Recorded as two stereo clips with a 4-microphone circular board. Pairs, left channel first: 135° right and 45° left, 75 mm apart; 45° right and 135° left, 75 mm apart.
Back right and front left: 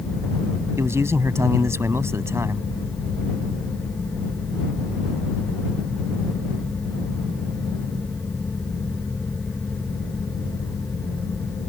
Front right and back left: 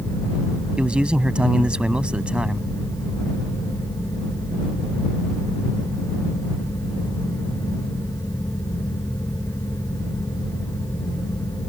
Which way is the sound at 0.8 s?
65° left.